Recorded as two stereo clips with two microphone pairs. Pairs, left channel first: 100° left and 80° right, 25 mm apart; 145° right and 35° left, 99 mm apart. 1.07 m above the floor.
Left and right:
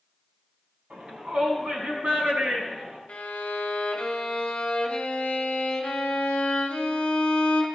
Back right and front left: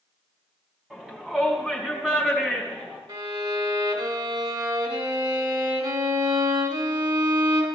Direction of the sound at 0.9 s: 45° right.